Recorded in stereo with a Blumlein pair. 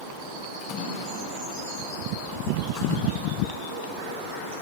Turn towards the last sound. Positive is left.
turn(degrees=35)